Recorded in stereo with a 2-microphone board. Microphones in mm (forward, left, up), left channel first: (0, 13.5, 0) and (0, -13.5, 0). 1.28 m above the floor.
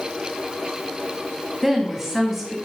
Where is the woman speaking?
5° right (ahead or behind), 2.5 m.